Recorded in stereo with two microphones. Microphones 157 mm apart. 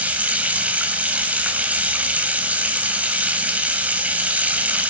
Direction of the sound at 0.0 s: 10° right (ahead or behind).